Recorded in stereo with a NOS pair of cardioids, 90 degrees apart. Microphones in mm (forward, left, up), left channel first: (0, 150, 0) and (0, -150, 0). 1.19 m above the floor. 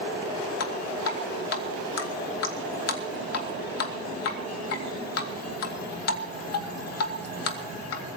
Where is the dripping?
55° left, 2.5 m.